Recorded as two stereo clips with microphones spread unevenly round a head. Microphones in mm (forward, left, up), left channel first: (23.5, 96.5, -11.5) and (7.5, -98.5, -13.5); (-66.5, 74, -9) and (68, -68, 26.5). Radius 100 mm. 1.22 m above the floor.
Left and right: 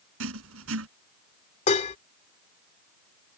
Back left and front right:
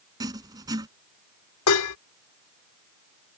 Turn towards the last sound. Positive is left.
turn(degrees=145)